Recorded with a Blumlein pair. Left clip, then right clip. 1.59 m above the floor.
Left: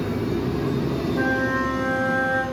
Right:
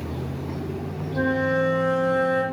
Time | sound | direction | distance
1.1 | a flute | 5° left | 3 m